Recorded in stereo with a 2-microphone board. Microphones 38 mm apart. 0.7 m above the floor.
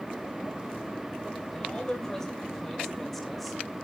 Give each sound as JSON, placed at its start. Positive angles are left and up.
{"t": 1.5, "sound": "a man speaking", "side_deg": 15, "distance_m": 3.0}